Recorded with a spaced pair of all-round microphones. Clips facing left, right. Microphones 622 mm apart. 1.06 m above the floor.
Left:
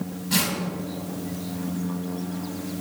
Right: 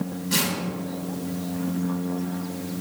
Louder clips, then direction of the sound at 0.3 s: Left 2 dB; 20° left (ahead or behind).